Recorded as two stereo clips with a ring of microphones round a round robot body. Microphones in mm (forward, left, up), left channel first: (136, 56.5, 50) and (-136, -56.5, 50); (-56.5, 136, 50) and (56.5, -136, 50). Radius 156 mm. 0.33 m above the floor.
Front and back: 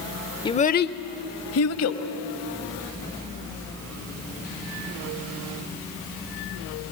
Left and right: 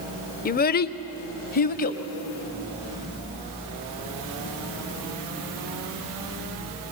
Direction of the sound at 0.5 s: 85° left.